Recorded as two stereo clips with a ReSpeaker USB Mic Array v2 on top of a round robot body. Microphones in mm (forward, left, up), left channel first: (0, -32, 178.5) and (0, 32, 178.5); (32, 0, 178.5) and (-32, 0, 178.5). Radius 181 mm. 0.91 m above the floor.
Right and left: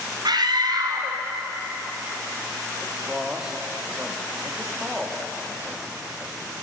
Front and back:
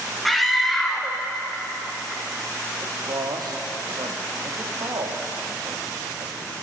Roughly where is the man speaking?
Behind.